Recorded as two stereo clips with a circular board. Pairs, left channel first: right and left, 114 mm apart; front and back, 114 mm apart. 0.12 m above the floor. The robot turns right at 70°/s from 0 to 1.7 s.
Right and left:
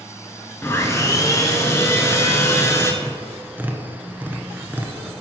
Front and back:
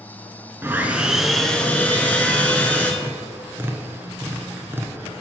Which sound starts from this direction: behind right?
Sawing, at 0.6 s.